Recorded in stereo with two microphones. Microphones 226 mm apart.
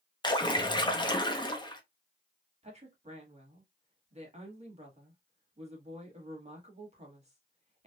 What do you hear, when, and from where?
0.2 s a splash: 20° left (ahead or behind), 0.6 m
2.6 s a woman speaking: 30° right (ahead or behind), 1.5 m